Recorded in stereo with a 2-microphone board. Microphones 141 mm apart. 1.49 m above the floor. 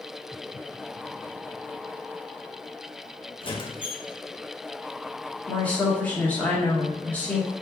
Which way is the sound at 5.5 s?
10° left (ahead or behind).